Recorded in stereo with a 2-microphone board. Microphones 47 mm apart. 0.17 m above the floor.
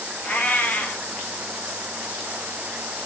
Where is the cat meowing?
40° left (ahead or behind), 1.1 m.